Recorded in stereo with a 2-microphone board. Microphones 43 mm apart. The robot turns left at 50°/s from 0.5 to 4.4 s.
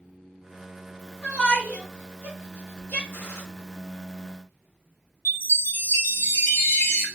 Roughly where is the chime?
Left.